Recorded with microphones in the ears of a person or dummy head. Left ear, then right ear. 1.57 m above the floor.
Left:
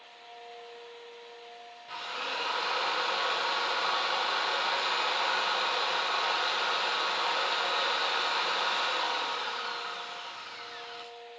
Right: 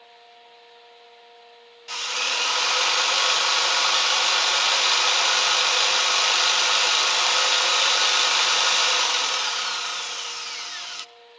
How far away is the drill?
About 1.4 m.